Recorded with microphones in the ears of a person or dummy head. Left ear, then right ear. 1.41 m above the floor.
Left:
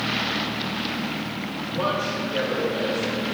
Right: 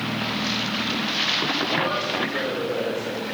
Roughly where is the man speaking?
Left.